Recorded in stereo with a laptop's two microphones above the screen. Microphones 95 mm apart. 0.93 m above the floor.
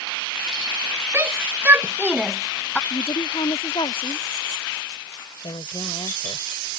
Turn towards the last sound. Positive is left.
turn(degrees=65)  # may be behind; listen again after turning